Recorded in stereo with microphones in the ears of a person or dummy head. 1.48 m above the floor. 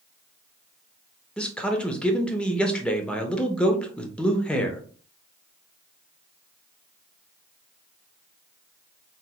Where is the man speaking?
5° left (ahead or behind), 0.6 m.